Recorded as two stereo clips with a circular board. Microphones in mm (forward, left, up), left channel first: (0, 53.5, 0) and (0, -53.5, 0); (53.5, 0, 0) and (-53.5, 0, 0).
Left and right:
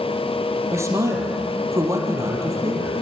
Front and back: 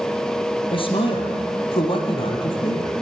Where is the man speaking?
30° right, 3.5 m.